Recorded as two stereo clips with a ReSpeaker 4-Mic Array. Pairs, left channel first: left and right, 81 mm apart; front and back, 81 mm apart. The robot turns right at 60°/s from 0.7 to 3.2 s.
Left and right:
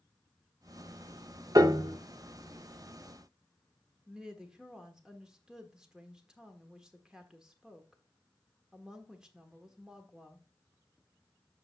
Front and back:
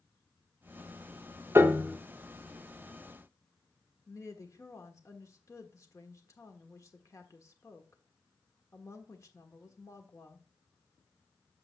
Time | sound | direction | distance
1.6 | a piano | 125° right | 0.6 m
4.1 | a woman speaking | 15° right | 1.3 m